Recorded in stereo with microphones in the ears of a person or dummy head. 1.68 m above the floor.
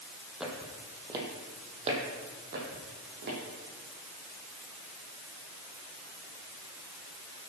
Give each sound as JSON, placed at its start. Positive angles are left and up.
{"t": 0.4, "sound": "footsteps", "side_deg": -5, "distance_m": 3.5}